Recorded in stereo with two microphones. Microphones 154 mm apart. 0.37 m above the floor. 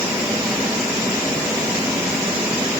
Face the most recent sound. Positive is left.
No sound to turn to.